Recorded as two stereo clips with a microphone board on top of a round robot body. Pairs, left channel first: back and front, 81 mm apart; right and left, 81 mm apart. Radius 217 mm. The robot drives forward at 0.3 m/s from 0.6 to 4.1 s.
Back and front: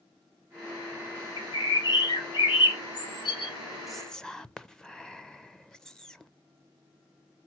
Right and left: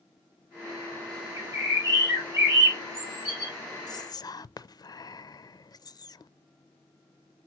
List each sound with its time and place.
1.4 s a bird: 140° left, 1.8 m; by 3.5 s 150° left, 2.5 m
3.9 s whispering: 85° right, 0.5 m; by 6.3 s 100° right, 0.5 m